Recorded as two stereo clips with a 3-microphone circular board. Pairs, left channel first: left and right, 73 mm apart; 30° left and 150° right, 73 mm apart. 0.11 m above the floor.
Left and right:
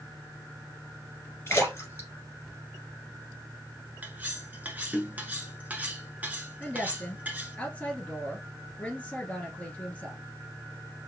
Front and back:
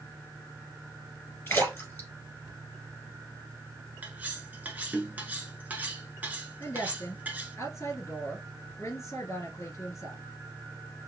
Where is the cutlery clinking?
120° right, 0.7 m.